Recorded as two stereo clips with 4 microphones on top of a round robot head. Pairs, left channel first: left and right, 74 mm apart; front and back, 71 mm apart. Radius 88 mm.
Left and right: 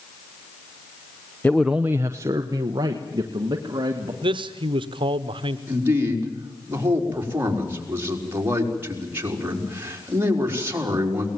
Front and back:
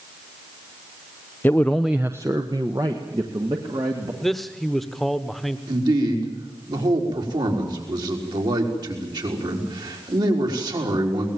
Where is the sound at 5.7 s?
150° right, 4.5 m.